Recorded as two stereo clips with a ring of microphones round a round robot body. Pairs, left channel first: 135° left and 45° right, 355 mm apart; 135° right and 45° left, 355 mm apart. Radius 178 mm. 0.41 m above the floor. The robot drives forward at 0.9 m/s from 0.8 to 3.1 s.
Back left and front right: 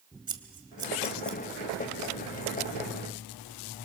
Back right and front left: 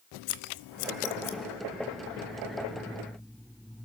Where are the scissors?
120° right, 1.1 m; by 1.4 s 140° right, 1.5 m.